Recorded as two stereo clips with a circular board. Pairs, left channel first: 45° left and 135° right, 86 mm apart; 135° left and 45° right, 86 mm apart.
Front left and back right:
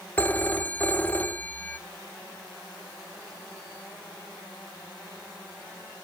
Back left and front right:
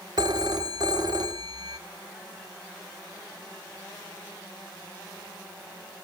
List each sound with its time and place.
0.2 s a phone ringing: 25° right, 1.2 m